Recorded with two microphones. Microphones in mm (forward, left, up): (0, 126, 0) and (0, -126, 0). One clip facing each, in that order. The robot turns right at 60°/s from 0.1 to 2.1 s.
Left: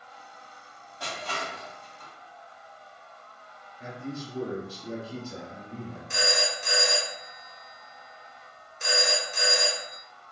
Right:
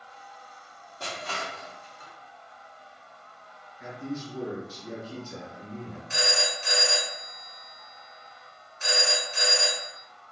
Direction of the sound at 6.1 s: 45° left (ahead or behind).